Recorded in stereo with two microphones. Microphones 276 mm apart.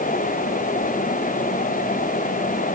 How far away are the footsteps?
No footsteps in this recording.